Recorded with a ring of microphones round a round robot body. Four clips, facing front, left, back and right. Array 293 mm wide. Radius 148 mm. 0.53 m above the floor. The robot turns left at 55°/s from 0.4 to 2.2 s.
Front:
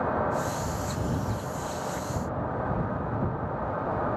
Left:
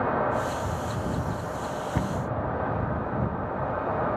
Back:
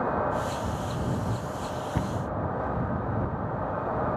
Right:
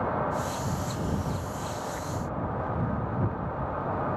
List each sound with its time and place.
1.9 s a cupboard door: 125° left; by 2.2 s 115° left